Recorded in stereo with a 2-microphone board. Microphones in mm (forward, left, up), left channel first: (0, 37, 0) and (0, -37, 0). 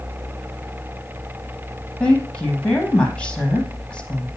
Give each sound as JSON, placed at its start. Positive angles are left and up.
{"t": 2.0, "sound": "a woman speaking", "side_deg": 10, "distance_m": 4.5}